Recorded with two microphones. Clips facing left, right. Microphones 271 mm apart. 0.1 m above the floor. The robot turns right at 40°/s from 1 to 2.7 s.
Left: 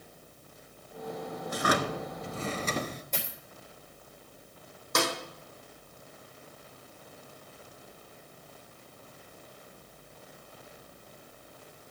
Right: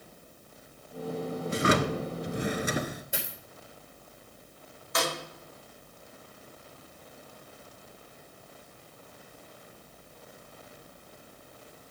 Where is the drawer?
25° right (ahead or behind), 0.7 m; by 3.0 s 10° right (ahead or behind), 0.7 m.